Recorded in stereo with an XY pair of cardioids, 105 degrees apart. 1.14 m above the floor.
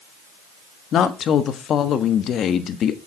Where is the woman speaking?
60° left, 1.3 m.